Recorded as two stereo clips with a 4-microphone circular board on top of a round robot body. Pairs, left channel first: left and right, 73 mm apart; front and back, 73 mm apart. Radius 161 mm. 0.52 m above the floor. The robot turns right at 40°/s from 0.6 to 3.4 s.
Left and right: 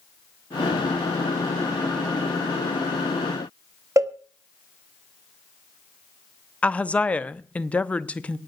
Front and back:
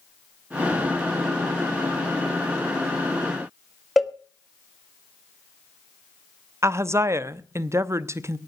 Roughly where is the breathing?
No breathing in this recording.